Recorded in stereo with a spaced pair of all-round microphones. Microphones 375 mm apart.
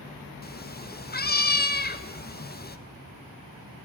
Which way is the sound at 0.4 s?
25° left (ahead or behind).